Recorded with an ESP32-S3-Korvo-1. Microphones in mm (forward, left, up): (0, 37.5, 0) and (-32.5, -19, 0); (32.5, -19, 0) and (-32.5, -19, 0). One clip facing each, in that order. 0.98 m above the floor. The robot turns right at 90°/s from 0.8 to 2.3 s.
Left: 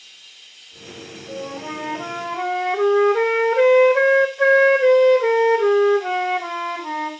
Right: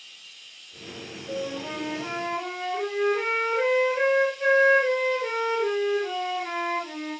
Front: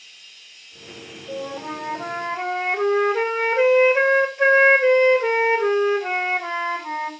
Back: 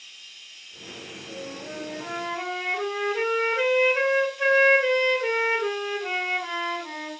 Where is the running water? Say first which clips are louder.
Left 1 dB, even; 60° left, 8 m; by 7.2 s 165° right, 8 m.